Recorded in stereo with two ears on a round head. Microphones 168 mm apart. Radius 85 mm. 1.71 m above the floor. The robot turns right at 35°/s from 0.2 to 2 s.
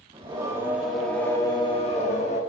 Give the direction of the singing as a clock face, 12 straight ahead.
1 o'clock.